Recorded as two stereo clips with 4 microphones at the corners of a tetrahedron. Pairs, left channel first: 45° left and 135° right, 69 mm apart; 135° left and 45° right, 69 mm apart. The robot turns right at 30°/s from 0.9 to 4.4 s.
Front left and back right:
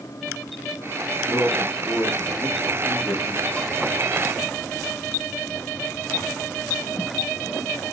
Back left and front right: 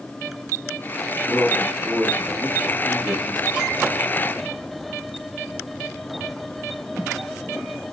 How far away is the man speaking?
About 1.1 m.